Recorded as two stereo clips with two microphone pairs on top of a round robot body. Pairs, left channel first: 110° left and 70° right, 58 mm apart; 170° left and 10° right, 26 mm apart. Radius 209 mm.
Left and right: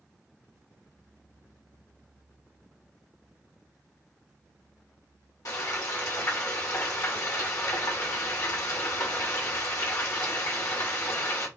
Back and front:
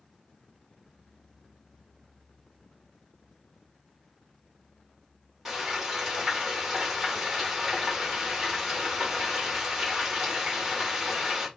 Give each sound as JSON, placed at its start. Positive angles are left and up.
{"t": 5.5, "sound": "frying", "azimuth_deg": 70, "distance_m": 2.5}